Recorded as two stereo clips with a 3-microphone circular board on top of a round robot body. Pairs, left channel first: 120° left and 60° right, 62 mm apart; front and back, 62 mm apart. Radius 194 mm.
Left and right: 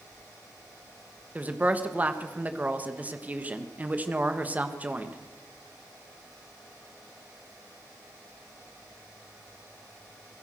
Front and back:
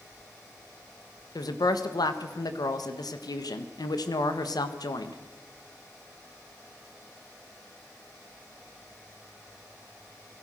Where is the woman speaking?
10° left, 1.7 m.